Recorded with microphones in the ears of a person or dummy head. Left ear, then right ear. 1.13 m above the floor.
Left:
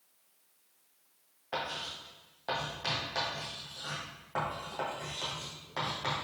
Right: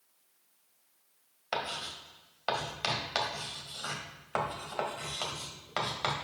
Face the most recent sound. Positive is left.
turn(degrees=-65)  # may be behind; listen again after turning